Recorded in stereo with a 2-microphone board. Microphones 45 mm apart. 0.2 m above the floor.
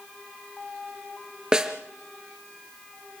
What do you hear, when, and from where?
1.5 s a snare drum: 15° right (ahead or behind), 3 m